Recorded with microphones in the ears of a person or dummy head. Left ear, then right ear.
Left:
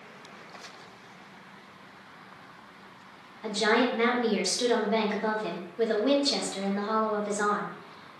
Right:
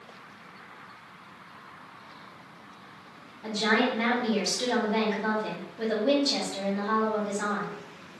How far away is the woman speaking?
About 1.5 m.